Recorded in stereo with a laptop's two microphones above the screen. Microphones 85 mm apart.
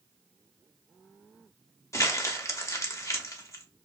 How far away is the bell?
I don't hear a bell.